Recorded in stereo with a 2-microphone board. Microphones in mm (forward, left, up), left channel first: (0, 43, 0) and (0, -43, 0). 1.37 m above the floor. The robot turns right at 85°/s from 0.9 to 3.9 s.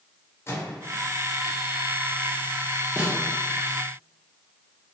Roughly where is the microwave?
Left.